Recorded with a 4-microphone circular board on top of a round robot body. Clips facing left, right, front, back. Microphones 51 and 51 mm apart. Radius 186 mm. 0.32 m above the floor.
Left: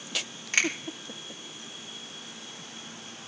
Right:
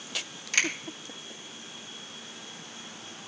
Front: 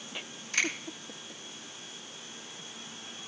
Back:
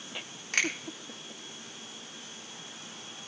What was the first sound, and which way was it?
A finger snap, 155° left.